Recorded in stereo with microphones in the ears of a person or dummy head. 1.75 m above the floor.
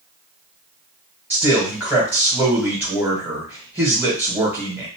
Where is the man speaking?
10° right (ahead or behind), 1.3 m.